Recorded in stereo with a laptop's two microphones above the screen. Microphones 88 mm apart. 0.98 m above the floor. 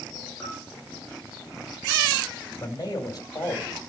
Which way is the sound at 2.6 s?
40° left (ahead or behind).